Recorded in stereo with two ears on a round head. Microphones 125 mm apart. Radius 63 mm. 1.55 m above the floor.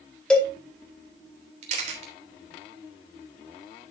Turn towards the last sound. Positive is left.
turn(degrees=-55)  # may be behind; listen again after turning